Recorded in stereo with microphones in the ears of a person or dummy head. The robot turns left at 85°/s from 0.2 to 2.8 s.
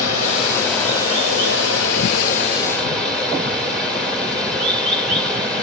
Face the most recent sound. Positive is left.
turn(degrees=0)